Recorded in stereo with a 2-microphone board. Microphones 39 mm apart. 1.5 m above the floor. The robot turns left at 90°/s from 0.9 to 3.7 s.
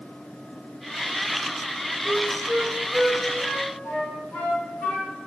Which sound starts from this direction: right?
A flute, at 2.0 s.